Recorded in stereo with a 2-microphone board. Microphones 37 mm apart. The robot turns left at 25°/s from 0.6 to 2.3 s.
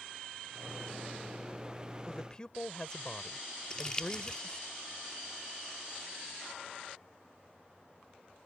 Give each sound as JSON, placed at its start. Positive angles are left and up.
{"t": 2.1, "sound": "a man speaking", "side_deg": 15}
{"t": 3.7, "sound": "crumpling", "side_deg": 20}